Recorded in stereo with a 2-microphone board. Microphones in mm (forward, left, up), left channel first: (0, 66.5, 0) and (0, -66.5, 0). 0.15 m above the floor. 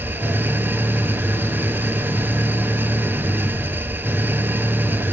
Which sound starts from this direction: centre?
An engine running, at 0.0 s.